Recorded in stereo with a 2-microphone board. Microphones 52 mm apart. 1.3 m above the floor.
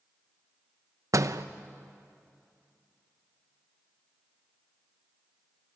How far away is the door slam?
About 0.7 m.